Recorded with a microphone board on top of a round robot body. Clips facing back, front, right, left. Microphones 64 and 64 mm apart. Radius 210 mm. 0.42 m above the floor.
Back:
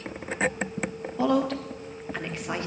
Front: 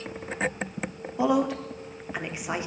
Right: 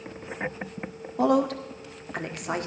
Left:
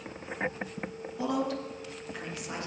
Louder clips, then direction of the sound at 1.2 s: Even, right 8 dB; 75° right.